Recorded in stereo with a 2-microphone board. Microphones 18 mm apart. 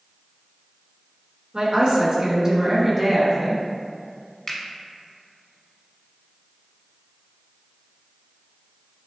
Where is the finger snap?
20° left (ahead or behind), 1.0 m.